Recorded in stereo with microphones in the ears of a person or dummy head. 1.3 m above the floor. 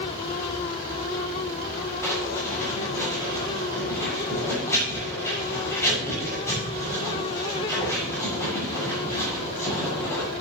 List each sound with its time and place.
2.0 s writing: 10° left (ahead or behind), 7.5 m